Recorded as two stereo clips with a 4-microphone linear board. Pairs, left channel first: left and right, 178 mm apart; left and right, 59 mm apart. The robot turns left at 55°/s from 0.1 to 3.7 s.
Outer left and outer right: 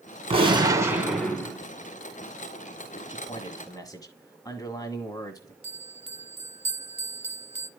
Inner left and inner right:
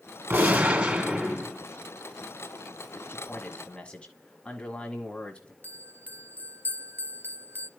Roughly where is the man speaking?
Left.